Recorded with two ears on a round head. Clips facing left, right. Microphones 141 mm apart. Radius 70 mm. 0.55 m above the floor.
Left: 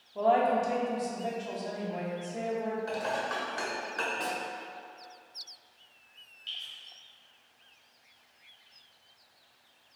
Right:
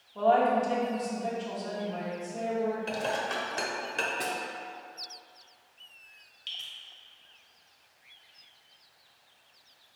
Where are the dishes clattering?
25° right (ahead or behind), 0.6 m.